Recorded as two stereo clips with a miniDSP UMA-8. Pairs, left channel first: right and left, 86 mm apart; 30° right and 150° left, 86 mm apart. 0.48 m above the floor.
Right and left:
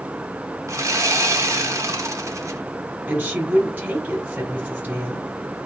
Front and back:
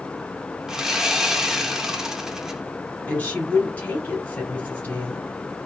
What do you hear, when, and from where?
0.7 s sawing: 65° left, 0.6 m
3.1 s a woman speaking: 30° left, 1.5 m